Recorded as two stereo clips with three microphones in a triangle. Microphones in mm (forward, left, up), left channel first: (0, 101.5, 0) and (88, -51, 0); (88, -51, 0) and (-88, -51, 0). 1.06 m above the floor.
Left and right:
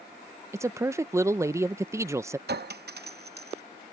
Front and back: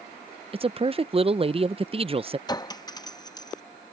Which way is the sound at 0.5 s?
130° right.